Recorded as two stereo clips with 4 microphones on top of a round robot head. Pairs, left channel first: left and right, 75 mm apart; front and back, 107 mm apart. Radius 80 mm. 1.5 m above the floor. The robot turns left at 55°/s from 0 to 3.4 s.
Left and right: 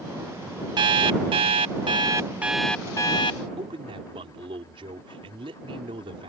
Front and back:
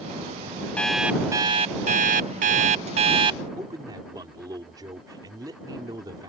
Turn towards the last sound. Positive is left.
turn(degrees=-115)